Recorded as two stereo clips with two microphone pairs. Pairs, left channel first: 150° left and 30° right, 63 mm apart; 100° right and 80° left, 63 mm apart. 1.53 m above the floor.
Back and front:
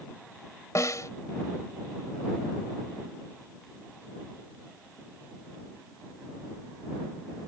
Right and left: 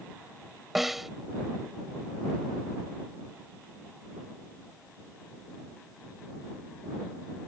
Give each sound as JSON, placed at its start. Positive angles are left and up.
{"t": 0.8, "sound": "a snare drum", "azimuth_deg": 165}